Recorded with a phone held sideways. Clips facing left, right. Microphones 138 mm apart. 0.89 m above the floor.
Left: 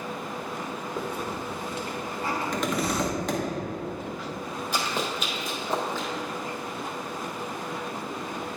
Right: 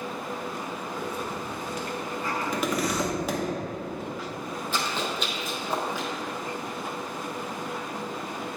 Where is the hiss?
30° left (ahead or behind), 1.0 m.